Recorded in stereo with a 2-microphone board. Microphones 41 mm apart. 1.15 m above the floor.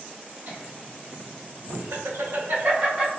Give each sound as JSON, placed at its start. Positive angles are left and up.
{"t": 0.5, "sound": "laughter", "side_deg": -45, "distance_m": 1.5}